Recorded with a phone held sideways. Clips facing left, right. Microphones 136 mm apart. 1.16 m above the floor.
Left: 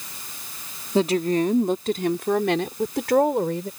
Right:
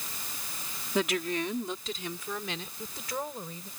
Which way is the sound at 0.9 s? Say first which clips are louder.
Left 9 dB; 30° left (ahead or behind).